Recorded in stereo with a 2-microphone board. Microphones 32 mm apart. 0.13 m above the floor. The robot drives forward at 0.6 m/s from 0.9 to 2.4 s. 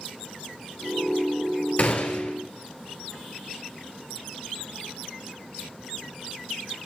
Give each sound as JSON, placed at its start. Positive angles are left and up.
{"t": 1.8, "sound": "a gunshot", "side_deg": 55, "distance_m": 1.1}